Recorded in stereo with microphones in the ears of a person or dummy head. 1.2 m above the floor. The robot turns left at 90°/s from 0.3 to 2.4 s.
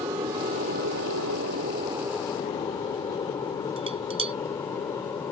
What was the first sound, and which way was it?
An aircraft, 15° right (ahead or behind).